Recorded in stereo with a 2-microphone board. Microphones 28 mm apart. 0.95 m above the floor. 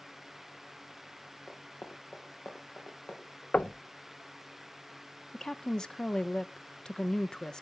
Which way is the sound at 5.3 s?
25° left (ahead or behind).